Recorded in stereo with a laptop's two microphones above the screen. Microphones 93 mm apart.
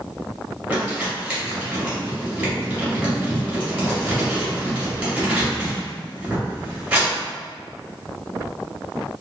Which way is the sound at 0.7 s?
15° right (ahead or behind).